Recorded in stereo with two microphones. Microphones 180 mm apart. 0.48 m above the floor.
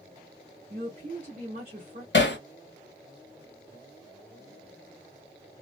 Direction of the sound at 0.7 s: 40° right (ahead or behind).